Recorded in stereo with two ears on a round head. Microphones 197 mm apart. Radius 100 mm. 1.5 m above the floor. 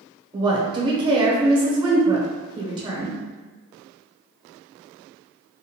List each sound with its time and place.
0.3 s a woman speaking: 20° right (ahead or behind), 0.9 m